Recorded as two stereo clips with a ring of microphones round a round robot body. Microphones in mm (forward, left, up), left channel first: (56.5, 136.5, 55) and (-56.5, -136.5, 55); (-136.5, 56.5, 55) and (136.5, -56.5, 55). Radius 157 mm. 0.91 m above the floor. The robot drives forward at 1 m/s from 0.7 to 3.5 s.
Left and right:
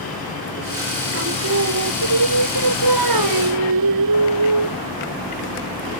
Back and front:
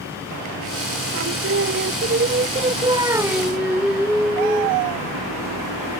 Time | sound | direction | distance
1.1 | singing | 65° right | ?